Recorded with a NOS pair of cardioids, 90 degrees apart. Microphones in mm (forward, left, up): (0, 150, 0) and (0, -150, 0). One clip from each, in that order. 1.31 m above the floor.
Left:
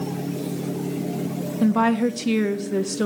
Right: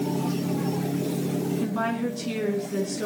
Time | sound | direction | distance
1.6 | a woman speaking | 55° left | 1.6 m